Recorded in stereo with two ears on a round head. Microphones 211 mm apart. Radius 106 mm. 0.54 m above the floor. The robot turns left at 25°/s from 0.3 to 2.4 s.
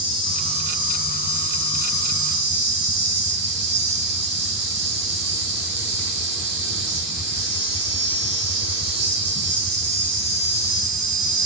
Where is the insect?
20° right, 0.8 m; by 11.5 s 75° right, 0.8 m.